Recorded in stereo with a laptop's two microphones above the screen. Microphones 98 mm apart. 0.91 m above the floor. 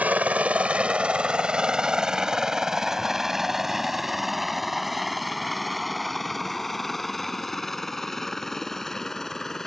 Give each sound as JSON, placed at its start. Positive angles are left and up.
{"t": 0.0, "sound": "a helicopter", "side_deg": -15}